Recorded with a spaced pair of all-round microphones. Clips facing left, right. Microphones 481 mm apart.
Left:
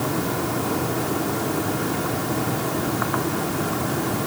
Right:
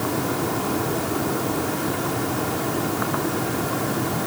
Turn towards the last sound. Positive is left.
No sound to turn to.